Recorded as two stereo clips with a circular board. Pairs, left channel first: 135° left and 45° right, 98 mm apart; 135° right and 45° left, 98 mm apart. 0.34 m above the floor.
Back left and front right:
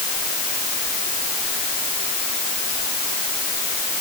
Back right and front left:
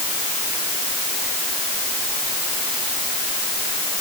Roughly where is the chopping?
No chopping in this recording.